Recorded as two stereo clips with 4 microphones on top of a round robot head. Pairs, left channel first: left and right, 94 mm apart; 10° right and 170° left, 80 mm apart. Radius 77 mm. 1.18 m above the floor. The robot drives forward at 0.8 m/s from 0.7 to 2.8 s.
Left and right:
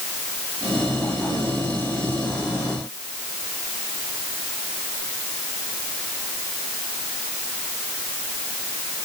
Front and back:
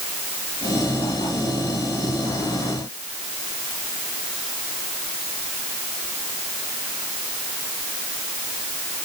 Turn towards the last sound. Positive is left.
No sound to turn to.